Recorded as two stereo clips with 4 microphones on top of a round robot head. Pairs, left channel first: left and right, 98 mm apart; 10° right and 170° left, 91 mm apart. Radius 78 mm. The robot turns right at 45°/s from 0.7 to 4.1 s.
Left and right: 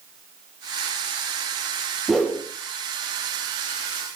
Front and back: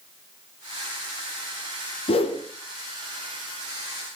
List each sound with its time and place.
2.1 s a whoosh: straight ahead, 1.7 m; by 2.4 s 15° left, 1.7 m